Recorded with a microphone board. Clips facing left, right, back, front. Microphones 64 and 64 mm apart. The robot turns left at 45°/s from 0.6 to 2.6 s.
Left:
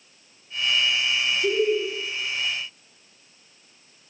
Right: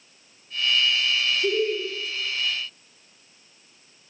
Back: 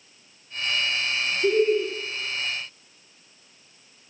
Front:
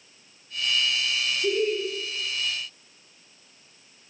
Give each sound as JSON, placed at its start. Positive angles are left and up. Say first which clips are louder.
{"t": 1.4, "sound": "laughter", "louder": "left 3 dB, back 5 dB", "azimuth_deg": -165, "distance_m": 0.9}